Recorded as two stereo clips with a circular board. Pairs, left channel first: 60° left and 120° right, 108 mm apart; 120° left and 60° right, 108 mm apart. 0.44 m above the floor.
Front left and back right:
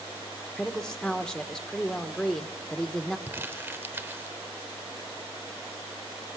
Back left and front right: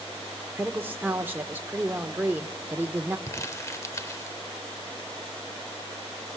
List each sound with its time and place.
0.6 s a woman speaking: 10° right, 0.9 m
3.3 s crumpling: 175° left, 0.9 m